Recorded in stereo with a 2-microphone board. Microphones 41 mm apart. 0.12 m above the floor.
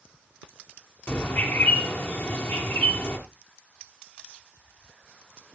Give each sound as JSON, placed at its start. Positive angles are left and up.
{"t": 1.1, "sound": "a bird", "side_deg": 55, "distance_m": 2.5}